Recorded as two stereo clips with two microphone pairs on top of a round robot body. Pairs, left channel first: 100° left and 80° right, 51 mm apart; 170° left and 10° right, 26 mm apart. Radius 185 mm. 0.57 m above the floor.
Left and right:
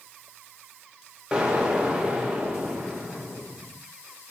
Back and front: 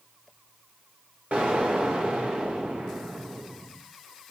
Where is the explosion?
10° right, 2.5 m.